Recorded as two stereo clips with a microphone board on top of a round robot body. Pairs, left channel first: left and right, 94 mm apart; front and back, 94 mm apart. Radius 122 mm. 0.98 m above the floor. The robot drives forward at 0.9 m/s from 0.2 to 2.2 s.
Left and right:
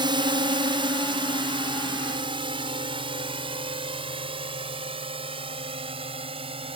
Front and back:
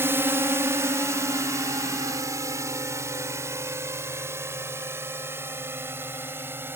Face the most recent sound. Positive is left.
turn(degrees=-115)